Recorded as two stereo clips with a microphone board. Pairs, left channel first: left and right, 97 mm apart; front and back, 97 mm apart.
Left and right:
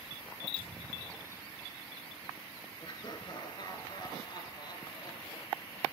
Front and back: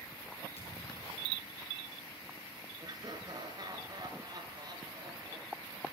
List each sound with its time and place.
0.6 s a thud: 10° left, 5.5 m
2.8 s laughter: 130° left, 3.5 m